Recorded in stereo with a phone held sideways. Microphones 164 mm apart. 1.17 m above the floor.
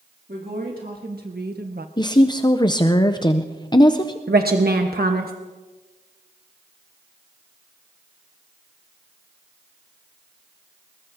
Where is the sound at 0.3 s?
65° right (ahead or behind), 3 m.